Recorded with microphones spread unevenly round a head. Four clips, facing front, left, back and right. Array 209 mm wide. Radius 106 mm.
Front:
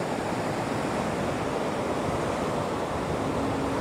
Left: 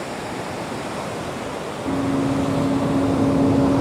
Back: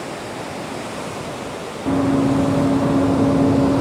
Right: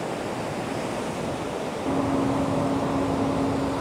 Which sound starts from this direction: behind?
Running footsteps, at 1.9 s.